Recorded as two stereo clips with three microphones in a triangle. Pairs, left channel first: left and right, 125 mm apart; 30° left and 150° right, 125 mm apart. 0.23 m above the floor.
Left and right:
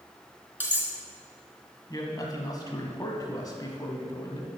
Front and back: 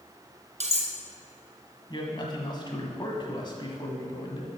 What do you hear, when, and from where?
0.6 s cutlery clinking: 165° right, 1.7 m
1.9 s a man speaking: 50° left, 1.3 m